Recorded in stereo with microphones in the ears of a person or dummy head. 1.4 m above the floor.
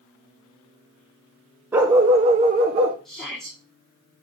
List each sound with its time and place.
1.7 s a dog barking: 10° right (ahead or behind), 0.8 m; by 3.0 s 30° right (ahead or behind), 1.1 m
3.0 s a shout: 5° left (ahead or behind), 3 m